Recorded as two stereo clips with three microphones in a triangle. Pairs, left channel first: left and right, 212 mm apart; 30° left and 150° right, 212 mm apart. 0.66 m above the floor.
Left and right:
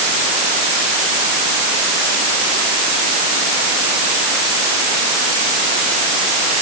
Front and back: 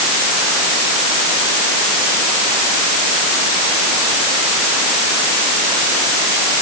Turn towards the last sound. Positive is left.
No sound to turn to.